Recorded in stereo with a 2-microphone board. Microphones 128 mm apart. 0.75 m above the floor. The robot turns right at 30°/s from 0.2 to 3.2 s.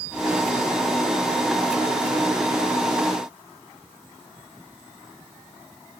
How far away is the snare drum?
I don't hear a snare drum.